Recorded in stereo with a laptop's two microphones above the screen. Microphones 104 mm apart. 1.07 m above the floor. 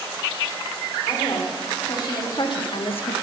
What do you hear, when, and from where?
1.1 s a woman speaking: 40° left (ahead or behind), 3 m; by 3.1 s 80° left, 0.7 m